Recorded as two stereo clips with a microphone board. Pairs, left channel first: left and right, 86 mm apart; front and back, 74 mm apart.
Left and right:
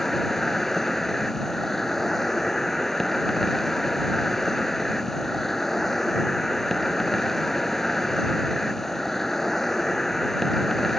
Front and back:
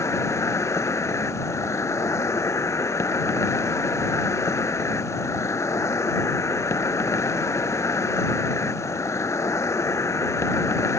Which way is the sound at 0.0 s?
5° left.